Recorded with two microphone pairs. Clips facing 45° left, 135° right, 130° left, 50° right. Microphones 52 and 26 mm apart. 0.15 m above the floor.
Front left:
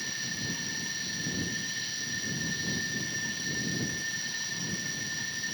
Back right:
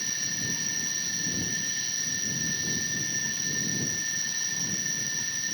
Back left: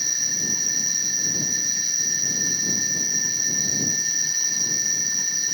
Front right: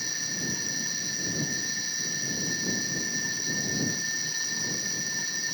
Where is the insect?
130° left.